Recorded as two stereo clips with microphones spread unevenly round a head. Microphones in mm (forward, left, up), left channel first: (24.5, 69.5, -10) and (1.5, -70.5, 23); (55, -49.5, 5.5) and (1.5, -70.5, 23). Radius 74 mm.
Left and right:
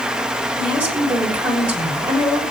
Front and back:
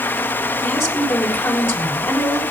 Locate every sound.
0.6 s a woman speaking: 20° right, 6 m